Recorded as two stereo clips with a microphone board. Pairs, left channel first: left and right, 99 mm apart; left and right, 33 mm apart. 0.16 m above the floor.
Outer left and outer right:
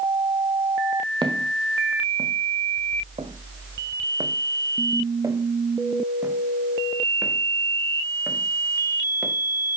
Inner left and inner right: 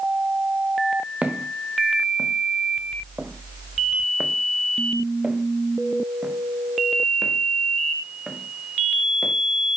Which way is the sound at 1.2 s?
50° right (ahead or behind).